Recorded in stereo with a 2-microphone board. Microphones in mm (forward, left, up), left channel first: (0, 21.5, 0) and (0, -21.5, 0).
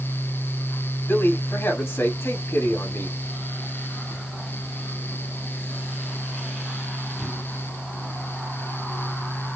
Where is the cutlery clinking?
I don't hear cutlery clinking.